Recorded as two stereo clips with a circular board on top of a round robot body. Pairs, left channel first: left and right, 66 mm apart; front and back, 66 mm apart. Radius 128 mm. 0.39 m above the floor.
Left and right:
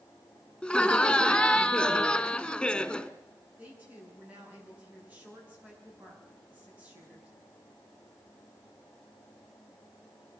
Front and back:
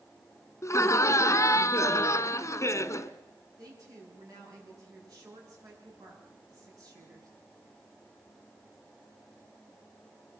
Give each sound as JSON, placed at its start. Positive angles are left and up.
{"t": 0.6, "sound": "laughter", "azimuth_deg": 10, "distance_m": 1.4}
{"t": 3.6, "sound": "a woman speaking", "azimuth_deg": -155, "distance_m": 8.0}